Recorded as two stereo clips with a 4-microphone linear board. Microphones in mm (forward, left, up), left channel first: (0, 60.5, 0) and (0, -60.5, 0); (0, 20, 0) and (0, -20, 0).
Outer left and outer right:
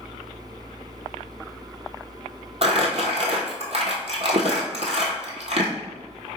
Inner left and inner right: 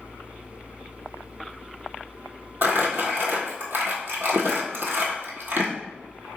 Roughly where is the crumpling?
Right.